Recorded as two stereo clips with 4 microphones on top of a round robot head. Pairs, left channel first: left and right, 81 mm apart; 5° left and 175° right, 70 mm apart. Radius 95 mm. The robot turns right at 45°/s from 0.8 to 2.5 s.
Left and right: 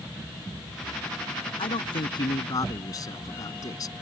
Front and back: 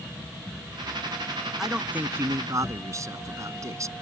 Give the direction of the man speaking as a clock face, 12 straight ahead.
9 o'clock.